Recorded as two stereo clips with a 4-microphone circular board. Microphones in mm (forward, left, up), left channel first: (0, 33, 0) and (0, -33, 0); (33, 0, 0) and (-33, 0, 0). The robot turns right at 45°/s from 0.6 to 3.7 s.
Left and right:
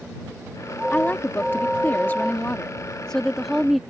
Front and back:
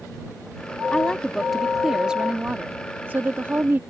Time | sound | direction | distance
0.9 | a woman speaking | 60° left | ?